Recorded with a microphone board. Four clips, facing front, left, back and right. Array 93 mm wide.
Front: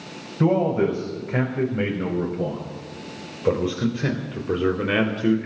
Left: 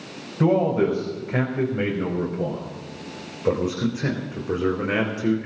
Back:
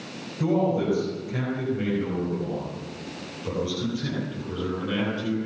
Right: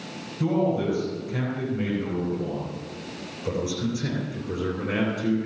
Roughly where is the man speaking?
Ahead left.